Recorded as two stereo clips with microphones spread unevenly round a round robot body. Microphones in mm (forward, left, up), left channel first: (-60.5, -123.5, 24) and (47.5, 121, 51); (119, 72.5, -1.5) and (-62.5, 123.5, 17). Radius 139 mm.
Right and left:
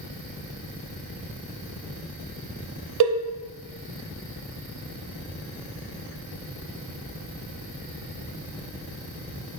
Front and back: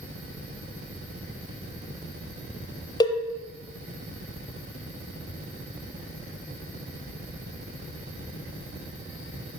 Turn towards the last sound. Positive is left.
turn(degrees=50)